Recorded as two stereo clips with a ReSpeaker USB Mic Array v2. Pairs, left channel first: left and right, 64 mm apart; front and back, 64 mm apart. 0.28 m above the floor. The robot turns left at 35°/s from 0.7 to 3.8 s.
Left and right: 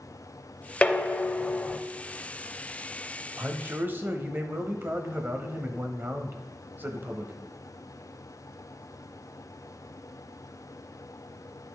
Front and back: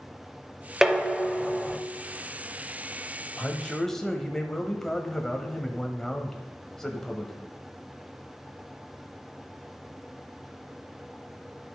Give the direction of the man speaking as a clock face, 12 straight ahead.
2 o'clock.